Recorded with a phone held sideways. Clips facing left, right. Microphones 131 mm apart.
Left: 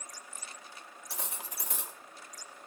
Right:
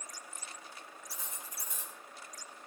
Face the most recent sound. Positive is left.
turn(degrees=80)